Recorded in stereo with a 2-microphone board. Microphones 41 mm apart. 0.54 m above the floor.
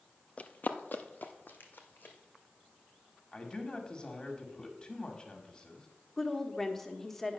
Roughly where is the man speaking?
Left.